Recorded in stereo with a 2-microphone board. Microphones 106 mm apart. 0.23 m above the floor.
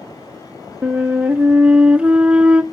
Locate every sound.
0.8 s a flute: 10° right (ahead or behind), 0.6 m